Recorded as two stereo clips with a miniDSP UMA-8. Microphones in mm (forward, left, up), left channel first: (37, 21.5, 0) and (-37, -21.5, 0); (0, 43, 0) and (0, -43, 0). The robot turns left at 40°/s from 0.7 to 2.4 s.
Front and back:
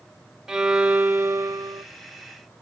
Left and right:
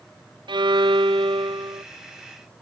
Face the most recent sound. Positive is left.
turn(degrees=-135)